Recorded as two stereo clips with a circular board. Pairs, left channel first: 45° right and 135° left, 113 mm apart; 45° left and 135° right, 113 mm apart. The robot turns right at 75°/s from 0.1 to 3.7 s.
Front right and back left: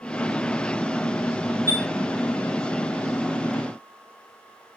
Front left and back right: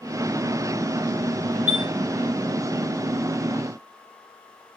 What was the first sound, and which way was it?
A chime, 80° right.